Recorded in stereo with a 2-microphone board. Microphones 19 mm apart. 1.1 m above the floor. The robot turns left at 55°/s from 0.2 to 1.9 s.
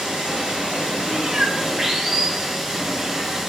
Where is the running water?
60° right, 6 m; by 3.5 s 150° right, 6 m.